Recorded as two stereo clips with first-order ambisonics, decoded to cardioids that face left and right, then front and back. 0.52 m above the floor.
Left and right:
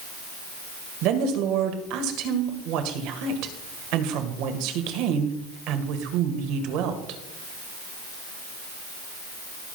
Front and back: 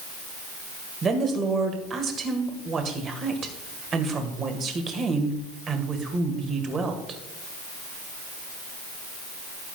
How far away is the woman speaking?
About 1.8 m.